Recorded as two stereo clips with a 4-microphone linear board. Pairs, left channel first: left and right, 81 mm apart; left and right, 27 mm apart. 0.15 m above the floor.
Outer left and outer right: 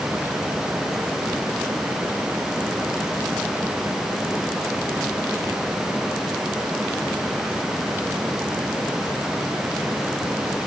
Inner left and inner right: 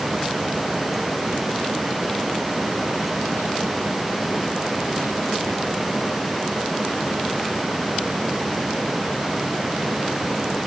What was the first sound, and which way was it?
Only background noise.